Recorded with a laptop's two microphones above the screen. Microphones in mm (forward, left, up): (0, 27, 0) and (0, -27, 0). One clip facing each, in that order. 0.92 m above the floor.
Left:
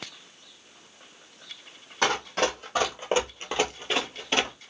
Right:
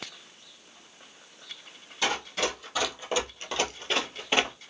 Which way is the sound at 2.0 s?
55° left (ahead or behind).